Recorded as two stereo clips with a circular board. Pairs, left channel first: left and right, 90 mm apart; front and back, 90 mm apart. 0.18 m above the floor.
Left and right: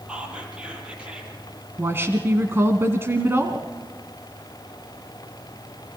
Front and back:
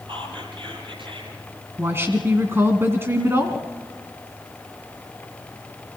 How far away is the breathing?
No breathing in this recording.